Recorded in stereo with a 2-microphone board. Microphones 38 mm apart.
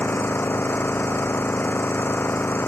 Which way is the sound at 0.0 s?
80° left.